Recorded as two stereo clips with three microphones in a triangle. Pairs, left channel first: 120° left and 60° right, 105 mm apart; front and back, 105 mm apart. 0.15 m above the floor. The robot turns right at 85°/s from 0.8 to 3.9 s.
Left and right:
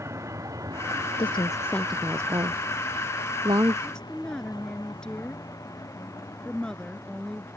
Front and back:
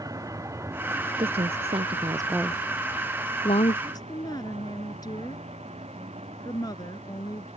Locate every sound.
0.0 s a vehicle: 125° right; by 7.6 s 175° right
1.2 s a woman speaking: 150° left; by 3.8 s 5° left
3.9 s a woman speaking: 35° left; by 7.5 s 40° left